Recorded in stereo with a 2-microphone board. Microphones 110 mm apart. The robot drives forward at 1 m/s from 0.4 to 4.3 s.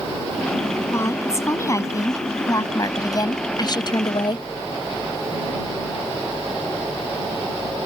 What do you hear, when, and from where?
0.9 s a woman speaking: 25° left (ahead or behind); by 4.5 s 45° left (ahead or behind)